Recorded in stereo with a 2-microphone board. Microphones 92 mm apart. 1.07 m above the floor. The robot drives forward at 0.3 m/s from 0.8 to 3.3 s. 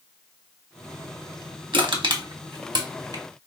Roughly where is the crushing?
Right.